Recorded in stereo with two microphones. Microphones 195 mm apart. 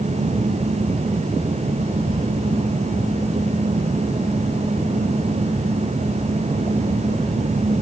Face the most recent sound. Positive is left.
No sound to turn to.